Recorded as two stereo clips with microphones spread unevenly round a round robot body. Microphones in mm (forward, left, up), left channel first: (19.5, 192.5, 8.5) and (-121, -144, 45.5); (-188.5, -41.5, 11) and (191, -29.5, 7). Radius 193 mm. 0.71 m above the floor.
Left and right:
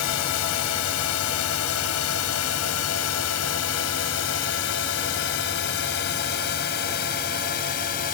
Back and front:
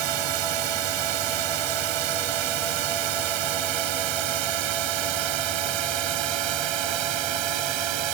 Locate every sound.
0.0 s a drone: 20° left; by 8.1 s straight ahead